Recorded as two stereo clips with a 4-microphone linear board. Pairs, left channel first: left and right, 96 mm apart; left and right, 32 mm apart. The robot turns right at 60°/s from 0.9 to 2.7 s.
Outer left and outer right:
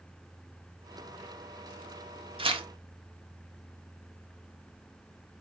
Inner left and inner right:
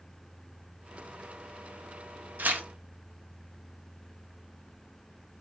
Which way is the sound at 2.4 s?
70° right (ahead or behind).